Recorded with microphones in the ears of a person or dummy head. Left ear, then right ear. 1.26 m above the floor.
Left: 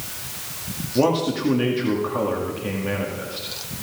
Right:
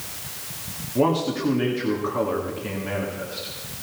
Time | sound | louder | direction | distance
0.9 | a man speaking | left 2 dB | 5° left (ahead or behind) | 2.0 m